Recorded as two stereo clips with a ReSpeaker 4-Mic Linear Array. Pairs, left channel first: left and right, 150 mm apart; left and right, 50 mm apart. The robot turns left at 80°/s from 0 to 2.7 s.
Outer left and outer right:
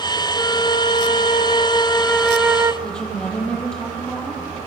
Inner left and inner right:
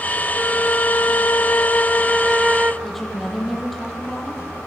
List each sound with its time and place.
0.4 s a flute: 160° left, 0.9 m; by 2.7 s 30° right, 0.9 m
2.8 s a woman speaking: 5° left (ahead or behind), 8 m